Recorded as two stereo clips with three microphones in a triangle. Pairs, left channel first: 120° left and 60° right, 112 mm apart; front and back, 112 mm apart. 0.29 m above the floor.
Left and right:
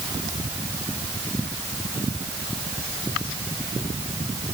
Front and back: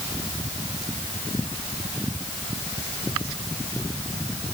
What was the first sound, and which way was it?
Only background noise.